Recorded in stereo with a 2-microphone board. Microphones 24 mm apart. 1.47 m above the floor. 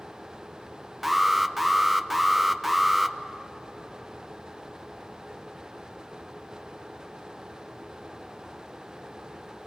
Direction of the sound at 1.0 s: 5° right (ahead or behind).